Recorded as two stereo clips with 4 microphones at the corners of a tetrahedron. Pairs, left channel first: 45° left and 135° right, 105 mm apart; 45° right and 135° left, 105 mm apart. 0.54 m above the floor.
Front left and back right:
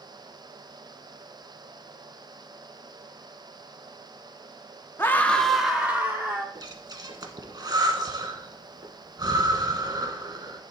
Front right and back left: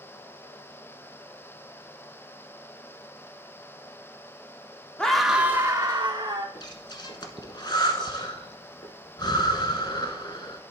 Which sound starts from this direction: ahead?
A scream, at 5.0 s.